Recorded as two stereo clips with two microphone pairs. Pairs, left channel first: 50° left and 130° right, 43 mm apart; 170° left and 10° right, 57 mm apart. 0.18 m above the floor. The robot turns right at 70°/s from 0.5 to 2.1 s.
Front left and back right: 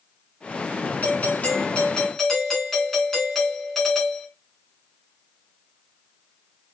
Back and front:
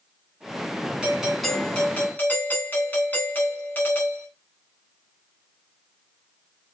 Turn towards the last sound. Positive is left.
turn(degrees=130)